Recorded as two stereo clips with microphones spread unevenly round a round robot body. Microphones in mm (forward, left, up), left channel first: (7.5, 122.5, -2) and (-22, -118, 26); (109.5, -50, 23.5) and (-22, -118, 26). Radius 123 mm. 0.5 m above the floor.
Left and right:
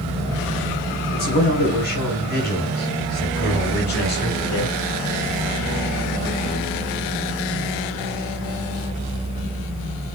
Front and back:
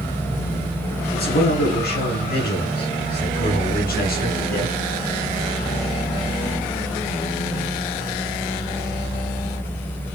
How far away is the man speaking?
About 6 m.